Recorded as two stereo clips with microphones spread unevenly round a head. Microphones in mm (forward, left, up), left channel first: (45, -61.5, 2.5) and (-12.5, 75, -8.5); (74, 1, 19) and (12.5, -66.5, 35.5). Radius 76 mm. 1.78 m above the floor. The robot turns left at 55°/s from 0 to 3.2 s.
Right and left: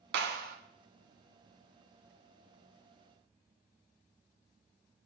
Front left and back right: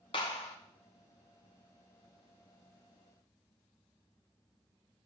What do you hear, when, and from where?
0.1 s a clap: 105° left, 1.7 m; by 0.6 s 80° left, 1.7 m